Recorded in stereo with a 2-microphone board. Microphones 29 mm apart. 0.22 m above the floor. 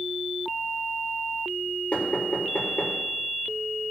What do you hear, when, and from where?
1.9 s knocking: 60° left (ahead or behind), 3.5 m